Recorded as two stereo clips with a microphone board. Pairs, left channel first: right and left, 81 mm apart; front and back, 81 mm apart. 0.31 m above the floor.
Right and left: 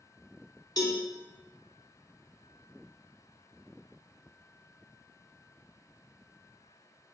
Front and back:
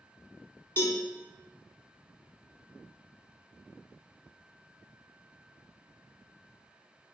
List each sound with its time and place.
0.8 s a cowbell: 55° right, 0.6 m